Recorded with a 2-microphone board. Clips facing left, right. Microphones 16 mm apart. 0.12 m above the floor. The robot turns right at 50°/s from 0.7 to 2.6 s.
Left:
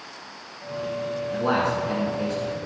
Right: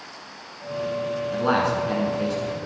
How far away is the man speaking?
About 1.2 m.